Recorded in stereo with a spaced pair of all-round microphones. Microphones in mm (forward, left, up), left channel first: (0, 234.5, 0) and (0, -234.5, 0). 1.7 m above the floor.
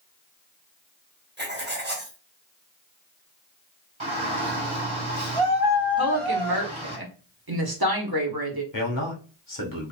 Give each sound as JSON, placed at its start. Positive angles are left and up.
{"t": 1.4, "sound": "writing", "side_deg": -20, "distance_m": 0.9}
{"t": 4.0, "sound": "a shout", "side_deg": -70, "distance_m": 1.6}
{"t": 6.0, "sound": "a woman speaking", "side_deg": -50, "distance_m": 1.2}
{"t": 8.7, "sound": "a man speaking", "side_deg": 40, "distance_m": 1.2}